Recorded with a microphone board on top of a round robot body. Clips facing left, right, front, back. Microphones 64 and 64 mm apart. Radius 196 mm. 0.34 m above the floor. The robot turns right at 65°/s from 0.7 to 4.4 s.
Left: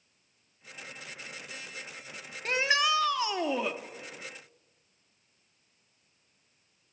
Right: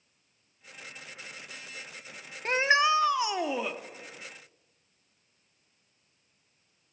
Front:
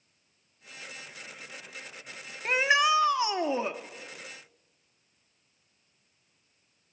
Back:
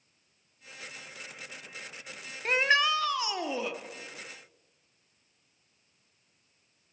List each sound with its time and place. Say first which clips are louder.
2.5 s a shout: right 3 dB, front 2 dB; 85° right, 0.9 m; by 3.8 s straight ahead, 0.9 m